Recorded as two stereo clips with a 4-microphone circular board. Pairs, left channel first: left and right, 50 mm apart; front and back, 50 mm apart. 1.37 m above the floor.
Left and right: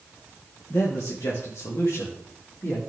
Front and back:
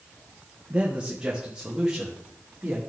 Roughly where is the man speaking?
Behind left.